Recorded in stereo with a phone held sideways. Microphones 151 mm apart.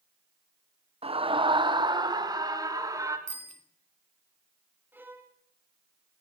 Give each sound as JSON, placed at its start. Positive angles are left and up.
{"t": 1.0, "sound": "a scream", "side_deg": -40, "distance_m": 1.1}
{"t": 3.3, "sound": "a bicycle bell", "side_deg": -50, "distance_m": 2.5}
{"t": 4.9, "sound": "a violin", "side_deg": -15, "distance_m": 2.5}